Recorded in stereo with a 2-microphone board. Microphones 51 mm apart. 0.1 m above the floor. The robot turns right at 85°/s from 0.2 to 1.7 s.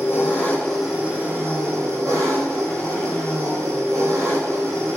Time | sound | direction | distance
0.0 | an engine running | 130° left | 1.1 m